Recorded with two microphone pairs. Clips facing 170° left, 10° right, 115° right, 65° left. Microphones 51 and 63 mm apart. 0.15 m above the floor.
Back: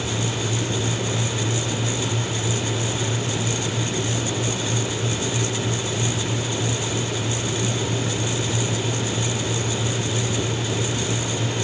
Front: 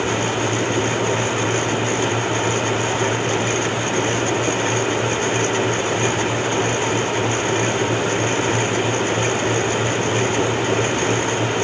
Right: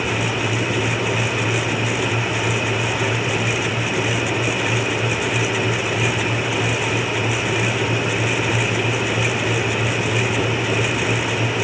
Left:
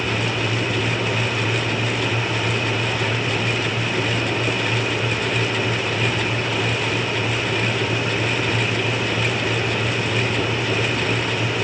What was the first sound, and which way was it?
Only background noise.